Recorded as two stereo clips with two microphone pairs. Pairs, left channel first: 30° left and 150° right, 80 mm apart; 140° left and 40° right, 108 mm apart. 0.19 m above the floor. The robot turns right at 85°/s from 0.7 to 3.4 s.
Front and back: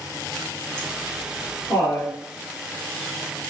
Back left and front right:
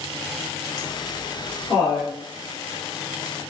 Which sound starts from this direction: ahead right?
Laughter, at 0.8 s.